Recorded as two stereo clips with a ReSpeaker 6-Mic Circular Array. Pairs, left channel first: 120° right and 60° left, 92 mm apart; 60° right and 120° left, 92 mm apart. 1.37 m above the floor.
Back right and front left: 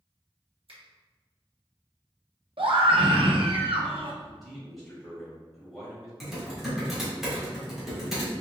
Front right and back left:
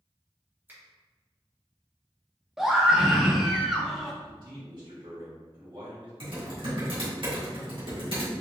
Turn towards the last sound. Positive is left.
turn(degrees=145)